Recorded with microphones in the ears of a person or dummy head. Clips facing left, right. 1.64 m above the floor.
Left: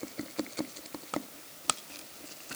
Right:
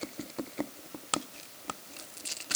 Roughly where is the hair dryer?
No hair dryer in this recording.